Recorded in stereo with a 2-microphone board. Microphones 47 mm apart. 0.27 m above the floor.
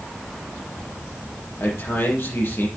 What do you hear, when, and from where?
1.6 s a man speaking: 55° left (ahead or behind), 6.5 m